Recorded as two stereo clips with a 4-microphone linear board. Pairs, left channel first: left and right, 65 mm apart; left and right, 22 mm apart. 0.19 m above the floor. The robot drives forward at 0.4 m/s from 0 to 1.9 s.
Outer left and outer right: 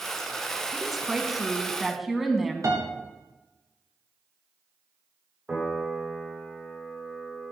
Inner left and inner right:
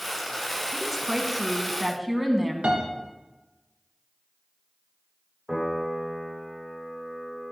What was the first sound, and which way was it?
A woman speaking, centre (ahead or behind).